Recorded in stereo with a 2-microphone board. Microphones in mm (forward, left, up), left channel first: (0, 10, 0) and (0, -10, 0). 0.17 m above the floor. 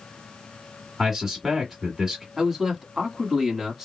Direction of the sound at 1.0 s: 20° right (ahead or behind).